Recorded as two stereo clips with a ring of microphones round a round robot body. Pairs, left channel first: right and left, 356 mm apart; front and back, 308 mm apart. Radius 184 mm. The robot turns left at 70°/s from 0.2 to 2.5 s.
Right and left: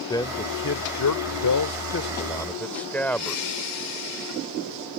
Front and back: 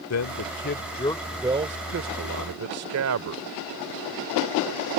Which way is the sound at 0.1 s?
15° right.